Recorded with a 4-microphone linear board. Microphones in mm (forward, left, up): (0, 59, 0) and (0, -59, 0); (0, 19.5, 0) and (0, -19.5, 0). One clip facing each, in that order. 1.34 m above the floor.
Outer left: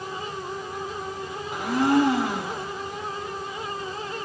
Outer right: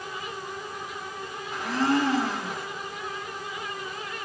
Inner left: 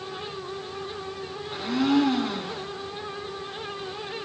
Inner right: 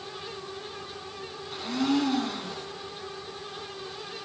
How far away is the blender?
About 2.5 m.